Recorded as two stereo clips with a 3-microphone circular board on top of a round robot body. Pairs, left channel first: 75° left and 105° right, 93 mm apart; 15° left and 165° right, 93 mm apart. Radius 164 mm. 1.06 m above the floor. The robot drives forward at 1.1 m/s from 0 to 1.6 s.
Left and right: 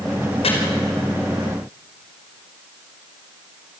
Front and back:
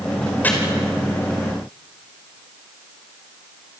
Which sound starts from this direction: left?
Chopping, at 0.4 s.